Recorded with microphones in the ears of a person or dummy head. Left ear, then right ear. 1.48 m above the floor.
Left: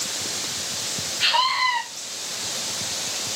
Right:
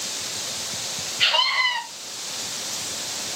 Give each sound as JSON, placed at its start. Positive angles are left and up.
{"t": 1.2, "sound": "a scream", "side_deg": -40, "distance_m": 1.1}